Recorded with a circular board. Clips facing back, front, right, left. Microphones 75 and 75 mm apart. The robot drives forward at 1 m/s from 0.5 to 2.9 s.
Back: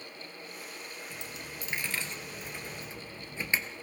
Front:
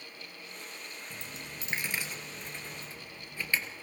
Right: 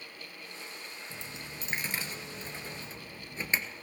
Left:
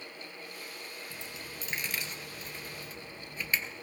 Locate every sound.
1.1 s a dropped coin: 30° right, 1.8 m; by 3.6 s 130° right, 1.4 m